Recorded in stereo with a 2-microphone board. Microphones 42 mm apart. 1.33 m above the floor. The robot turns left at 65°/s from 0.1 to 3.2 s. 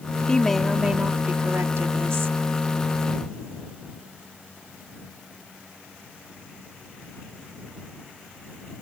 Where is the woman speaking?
20° left; by 2.4 s 115° right.